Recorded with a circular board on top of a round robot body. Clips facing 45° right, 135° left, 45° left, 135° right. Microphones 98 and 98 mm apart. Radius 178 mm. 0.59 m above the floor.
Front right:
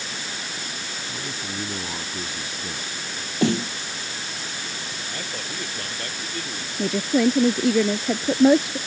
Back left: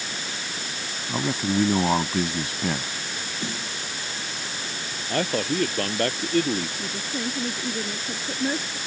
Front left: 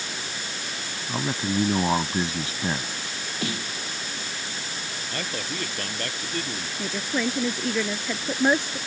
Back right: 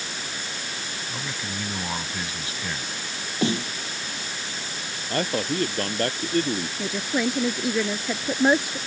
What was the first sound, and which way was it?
A man speaking, 105° left.